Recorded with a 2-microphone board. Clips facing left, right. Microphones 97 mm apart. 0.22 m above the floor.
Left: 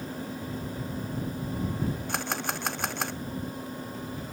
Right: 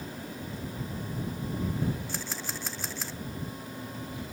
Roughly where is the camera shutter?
Left.